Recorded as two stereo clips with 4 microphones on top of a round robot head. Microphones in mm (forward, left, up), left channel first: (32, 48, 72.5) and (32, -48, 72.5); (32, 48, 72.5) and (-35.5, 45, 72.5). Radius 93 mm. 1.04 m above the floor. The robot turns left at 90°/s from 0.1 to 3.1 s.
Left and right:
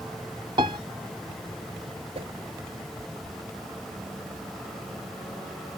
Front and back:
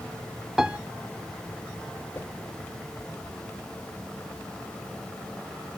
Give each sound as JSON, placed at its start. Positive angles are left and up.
{"t": 0.6, "sound": "a piano", "azimuth_deg": -90}
{"t": 2.1, "sound": "a whoosh", "azimuth_deg": -65}